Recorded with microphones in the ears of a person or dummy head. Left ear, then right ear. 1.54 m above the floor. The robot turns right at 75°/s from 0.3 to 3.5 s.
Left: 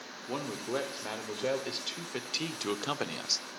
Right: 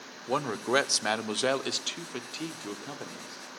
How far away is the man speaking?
About 0.6 m.